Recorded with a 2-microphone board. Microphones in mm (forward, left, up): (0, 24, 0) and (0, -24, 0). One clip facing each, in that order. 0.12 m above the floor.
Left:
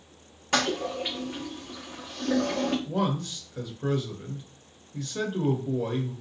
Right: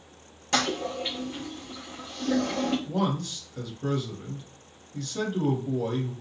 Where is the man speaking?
15° left (ahead or behind), 1.6 m.